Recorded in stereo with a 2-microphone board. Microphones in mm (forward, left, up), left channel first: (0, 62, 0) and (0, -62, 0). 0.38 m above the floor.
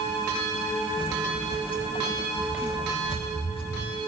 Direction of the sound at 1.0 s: 45° left (ahead or behind).